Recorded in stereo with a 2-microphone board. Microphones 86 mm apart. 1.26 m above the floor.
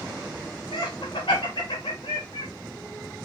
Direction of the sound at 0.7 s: 80° left.